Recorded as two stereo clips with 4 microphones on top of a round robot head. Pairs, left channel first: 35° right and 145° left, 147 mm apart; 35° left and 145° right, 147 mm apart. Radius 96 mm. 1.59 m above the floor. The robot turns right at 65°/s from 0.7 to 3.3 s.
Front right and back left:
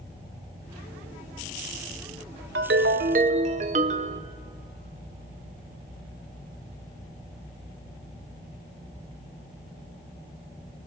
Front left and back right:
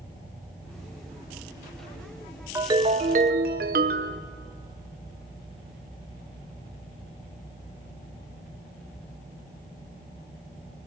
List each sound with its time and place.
2.5 s a ringtone: 140° left, 0.7 m; by 4.2 s 170° right, 0.7 m